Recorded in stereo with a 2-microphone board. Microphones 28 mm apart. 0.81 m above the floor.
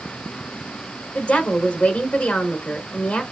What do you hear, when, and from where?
1.1 s a woman speaking: 70° left (ahead or behind), 2.5 m